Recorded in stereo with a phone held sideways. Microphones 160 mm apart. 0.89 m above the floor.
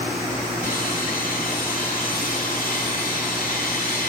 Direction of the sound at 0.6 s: 60° left (ahead or behind).